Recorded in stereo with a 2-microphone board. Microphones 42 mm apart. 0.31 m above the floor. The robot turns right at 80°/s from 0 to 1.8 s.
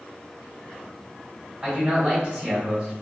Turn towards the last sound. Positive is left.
turn(degrees=-25)  # may be behind; listen again after turning